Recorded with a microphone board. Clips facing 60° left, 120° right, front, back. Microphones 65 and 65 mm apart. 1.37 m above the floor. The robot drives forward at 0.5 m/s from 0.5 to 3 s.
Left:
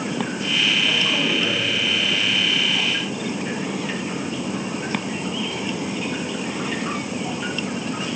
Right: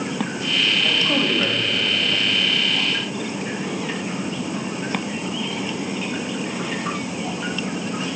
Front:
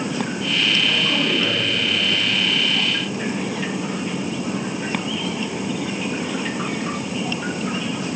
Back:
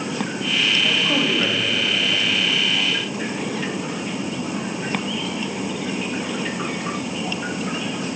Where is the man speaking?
130° right, 2.5 m; by 2.2 s 140° right, 2.5 m.